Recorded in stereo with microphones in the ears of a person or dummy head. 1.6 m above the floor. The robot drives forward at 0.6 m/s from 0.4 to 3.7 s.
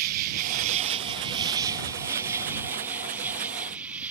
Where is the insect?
45° right (ahead or behind); by 4.1 s 10° right (ahead or behind).